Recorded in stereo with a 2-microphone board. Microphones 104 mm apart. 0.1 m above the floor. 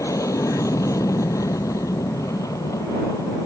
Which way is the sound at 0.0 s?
30° left (ahead or behind).